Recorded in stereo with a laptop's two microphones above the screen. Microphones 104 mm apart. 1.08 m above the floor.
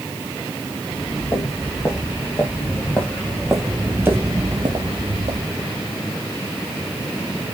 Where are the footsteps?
30° left (ahead or behind), 5 m; by 5.8 s 65° right (ahead or behind), 2.5 m.